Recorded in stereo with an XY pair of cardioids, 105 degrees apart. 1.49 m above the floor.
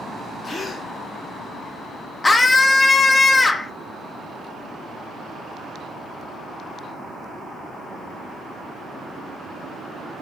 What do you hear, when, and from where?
0.4 s a gasp: 35° left, 0.7 m
2.2 s a scream: 20° left, 0.5 m